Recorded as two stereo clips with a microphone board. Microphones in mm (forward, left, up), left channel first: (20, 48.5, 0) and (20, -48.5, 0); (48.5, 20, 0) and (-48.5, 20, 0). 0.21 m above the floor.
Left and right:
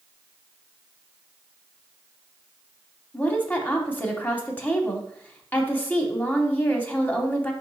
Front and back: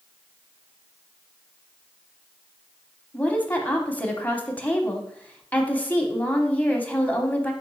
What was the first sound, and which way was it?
A woman speaking, 50° left.